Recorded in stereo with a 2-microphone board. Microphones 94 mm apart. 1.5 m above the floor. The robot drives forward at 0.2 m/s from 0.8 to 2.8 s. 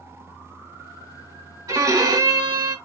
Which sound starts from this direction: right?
A violin, at 1.7 s.